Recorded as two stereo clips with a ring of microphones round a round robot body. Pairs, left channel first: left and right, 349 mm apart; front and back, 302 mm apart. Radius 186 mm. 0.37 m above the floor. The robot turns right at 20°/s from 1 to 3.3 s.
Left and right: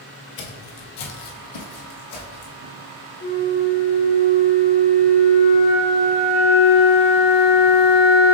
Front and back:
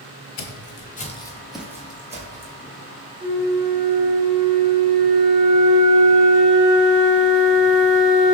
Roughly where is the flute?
Behind.